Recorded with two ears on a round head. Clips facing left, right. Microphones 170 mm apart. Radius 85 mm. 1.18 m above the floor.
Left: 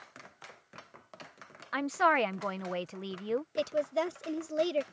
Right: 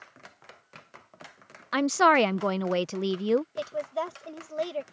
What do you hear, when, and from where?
1.7 s a woman speaking: 60° right (ahead or behind)
3.5 s a woman speaking: 30° left (ahead or behind)